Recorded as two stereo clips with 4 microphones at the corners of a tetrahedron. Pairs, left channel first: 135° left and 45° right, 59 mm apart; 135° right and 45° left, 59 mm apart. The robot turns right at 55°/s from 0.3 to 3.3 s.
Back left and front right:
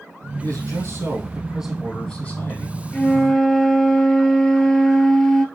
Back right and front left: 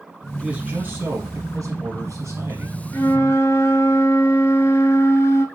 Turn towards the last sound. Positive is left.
turn(degrees=-150)